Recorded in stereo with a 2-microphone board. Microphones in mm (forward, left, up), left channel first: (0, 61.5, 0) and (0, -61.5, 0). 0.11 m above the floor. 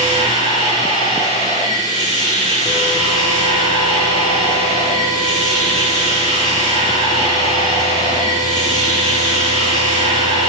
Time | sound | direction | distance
0.0 | running water | 70° left (ahead or behind) | 8 m